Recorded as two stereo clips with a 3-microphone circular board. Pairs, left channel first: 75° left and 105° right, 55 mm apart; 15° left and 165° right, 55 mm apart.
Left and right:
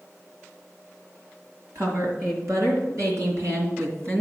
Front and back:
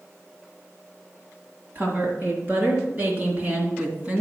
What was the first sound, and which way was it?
A woman speaking, 115° right.